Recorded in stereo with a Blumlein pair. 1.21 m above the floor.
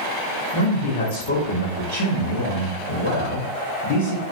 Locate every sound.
0.5 s a man speaking: 45° left, 0.8 m